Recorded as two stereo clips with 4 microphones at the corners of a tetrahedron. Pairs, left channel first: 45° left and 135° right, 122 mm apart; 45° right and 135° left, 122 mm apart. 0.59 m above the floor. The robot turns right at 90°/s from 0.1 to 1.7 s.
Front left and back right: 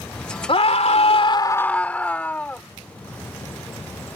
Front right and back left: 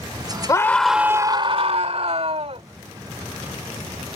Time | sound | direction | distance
0.5 | a scream | 10° left | ?